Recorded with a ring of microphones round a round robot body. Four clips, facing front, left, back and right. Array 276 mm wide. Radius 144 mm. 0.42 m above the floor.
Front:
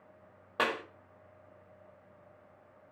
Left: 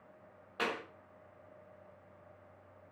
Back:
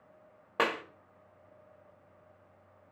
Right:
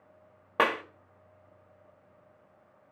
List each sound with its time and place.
0.6 s a clap: 105° right, 1.3 m